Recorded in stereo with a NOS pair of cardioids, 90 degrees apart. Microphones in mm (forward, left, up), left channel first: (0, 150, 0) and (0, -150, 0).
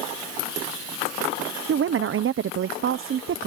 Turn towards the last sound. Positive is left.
turn(degrees=-45)